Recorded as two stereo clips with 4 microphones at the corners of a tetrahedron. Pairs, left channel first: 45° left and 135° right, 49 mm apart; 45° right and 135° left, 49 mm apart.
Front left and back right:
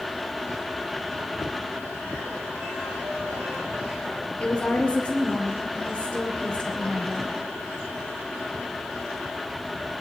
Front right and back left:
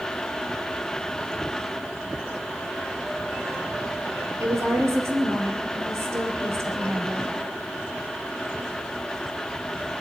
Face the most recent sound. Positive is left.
turn(degrees=110)